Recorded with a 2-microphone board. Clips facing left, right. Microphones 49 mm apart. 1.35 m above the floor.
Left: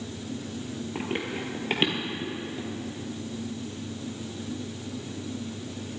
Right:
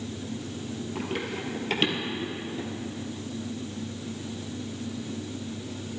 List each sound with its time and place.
0.9 s running footsteps: 25° left (ahead or behind), 1.7 m; by 2.7 s centre (ahead or behind), 2.5 m